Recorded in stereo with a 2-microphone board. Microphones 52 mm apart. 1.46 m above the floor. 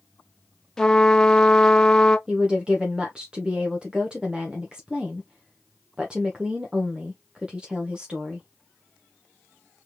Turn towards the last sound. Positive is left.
turn(degrees=-15)  # may be behind; listen again after turning